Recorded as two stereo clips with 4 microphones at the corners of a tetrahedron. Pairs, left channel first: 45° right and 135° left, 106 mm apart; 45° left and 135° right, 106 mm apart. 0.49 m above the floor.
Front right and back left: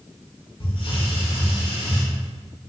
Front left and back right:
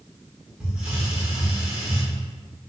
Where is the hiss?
55° right, 0.8 m.